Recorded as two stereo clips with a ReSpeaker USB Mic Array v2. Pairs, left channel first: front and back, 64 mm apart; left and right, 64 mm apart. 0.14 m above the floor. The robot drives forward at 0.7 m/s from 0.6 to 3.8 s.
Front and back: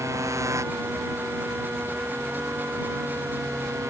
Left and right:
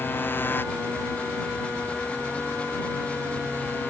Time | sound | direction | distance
0.0 | a motorcycle | 145° left | ?